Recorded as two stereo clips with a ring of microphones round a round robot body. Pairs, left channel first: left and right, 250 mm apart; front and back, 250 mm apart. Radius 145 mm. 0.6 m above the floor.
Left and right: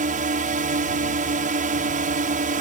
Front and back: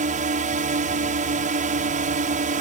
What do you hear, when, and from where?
0.0 s a drone: 135° right